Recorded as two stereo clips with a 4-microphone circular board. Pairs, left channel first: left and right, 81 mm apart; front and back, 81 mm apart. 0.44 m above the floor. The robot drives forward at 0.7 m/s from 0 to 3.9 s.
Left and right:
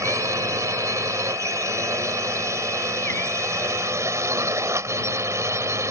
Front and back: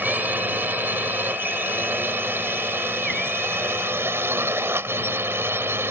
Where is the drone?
120° right; by 5.9 s 130° right.